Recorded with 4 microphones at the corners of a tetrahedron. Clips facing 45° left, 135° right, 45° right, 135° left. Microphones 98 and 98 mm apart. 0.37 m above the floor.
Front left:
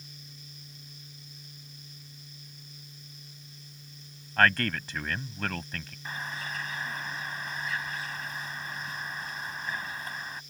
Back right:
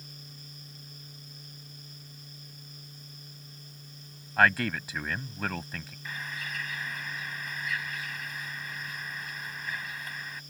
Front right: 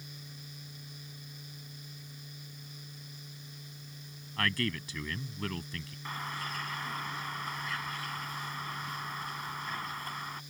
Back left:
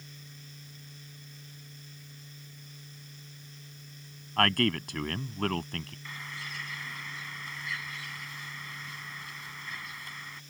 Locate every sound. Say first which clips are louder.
4.4 s a man speaking: even, back left 7 dB; 145° left
6.0 s a bird: front left 2 dB, front right 4 dB; 10° right